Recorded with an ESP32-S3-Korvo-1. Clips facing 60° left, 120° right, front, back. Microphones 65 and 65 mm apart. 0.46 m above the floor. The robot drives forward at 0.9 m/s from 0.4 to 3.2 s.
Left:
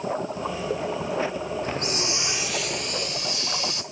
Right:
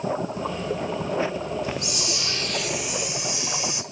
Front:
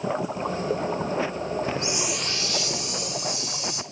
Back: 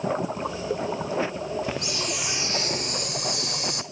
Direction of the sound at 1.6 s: 30° left.